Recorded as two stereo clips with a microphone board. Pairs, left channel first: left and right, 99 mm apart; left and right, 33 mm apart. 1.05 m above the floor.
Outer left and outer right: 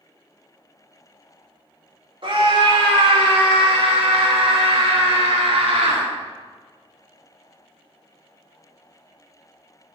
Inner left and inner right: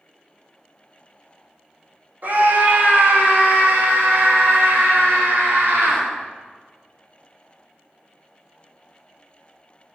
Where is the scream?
60° right (ahead or behind), 3 m; by 6.0 s 85° right, 4 m.